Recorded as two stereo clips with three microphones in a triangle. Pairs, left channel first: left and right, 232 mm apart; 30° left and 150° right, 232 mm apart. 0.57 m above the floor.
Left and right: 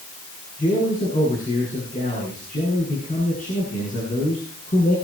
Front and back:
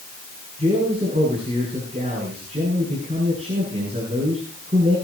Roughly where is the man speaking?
Behind left.